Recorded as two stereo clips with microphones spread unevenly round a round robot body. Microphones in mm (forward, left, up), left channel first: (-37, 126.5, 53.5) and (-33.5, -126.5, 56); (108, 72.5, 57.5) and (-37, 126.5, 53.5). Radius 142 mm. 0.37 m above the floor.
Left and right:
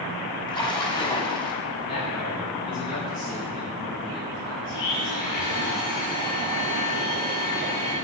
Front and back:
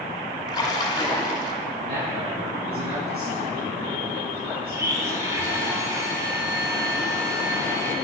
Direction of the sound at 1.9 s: 145° left.